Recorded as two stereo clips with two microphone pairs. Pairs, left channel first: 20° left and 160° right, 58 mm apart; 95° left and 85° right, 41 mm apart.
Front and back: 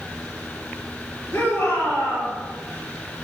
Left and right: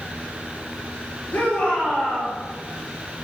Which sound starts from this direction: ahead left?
A shout, at 1.3 s.